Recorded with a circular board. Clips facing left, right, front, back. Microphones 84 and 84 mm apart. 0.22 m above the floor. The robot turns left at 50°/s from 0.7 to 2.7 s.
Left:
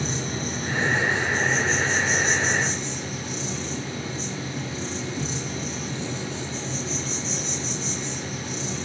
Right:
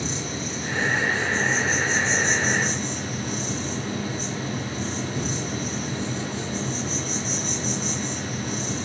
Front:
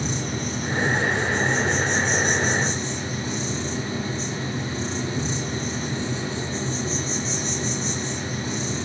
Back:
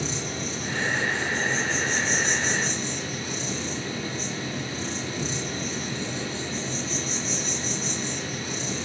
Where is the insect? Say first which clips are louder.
Left 1 dB, front 3 dB; 45° left, 7.5 m; by 8.9 s 55° right, 7.5 m.